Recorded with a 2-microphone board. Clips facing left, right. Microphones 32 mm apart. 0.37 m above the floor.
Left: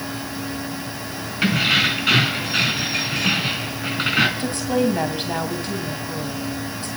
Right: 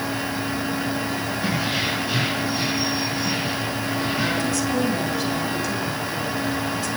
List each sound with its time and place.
1.4 s keys jangling: 70° left (ahead or behind), 2.5 m
4.4 s a woman speaking: 35° left (ahead or behind), 2.5 m